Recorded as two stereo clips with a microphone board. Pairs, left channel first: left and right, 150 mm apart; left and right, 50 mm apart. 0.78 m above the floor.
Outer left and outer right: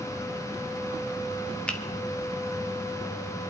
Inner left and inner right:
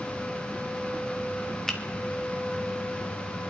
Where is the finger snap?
10° left (ahead or behind), 1.4 m.